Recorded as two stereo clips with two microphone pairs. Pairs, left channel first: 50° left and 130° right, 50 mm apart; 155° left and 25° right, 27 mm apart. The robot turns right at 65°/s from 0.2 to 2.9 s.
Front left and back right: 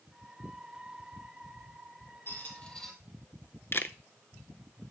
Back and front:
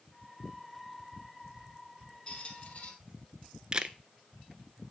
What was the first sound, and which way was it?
A squeak, 95° left.